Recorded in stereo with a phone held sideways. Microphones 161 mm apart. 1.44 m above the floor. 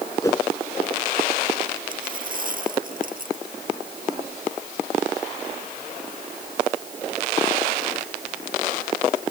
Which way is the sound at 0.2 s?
20° left (ahead or behind).